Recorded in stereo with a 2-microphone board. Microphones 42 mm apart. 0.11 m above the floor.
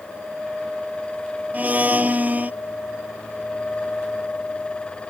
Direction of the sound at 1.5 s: 40° right (ahead or behind).